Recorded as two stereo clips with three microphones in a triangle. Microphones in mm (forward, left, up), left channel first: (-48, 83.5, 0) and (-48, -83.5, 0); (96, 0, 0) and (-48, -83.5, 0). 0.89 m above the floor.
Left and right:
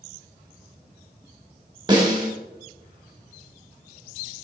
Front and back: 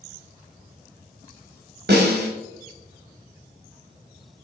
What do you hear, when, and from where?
1.9 s a snare drum: 155° right, 1.9 m